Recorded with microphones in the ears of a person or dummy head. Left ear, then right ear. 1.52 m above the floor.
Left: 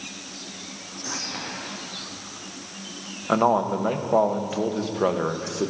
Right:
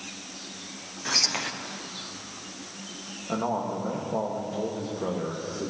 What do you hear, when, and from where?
1.1 s whispering: 75° right (ahead or behind), 0.7 m
3.3 s a man speaking: 70° left (ahead or behind), 0.9 m